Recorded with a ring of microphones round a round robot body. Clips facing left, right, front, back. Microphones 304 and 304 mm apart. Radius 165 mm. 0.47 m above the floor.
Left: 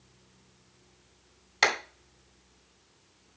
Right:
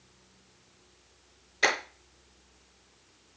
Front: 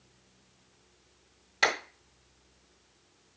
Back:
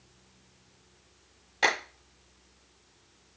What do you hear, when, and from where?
1.6 s a clap: 65° left, 3.5 m